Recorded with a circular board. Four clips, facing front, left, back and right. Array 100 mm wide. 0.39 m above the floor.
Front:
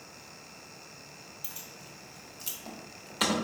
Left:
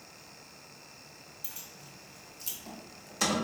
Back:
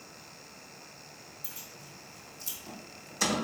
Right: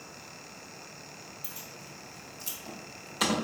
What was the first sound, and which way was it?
Keys jangling, straight ahead.